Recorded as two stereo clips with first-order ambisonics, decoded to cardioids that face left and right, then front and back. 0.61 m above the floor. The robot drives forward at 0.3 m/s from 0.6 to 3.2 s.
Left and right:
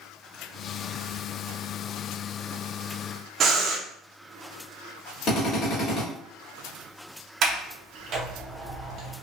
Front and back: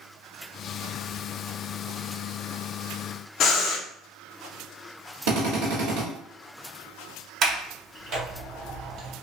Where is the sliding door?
130° right, 0.6 m.